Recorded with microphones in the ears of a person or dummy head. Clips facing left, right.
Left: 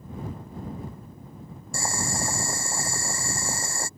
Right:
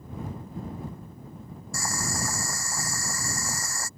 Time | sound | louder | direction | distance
1.7 | boiling | left 2 dB | 25° left (ahead or behind) | ?